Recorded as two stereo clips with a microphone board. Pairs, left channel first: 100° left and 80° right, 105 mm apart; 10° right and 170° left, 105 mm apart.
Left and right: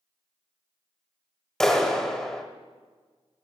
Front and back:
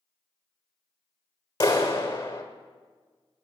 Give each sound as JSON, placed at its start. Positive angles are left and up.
{"t": 1.6, "sound": "a clap", "azimuth_deg": 20, "distance_m": 1.3}